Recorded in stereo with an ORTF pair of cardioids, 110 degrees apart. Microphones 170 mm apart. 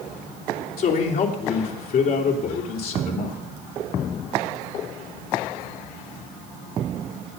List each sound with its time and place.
0.8 s a man speaking: 60° left, 3 m